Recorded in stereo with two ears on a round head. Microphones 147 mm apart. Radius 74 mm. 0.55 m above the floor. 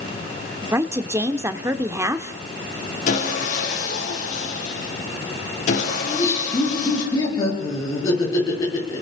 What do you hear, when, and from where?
0.7 s a woman speaking: 15° right (ahead or behind), 1.0 m
3.1 s sawing: 50° left (ahead or behind), 6.5 m
6.0 s laughter: 20° left (ahead or behind), 8 m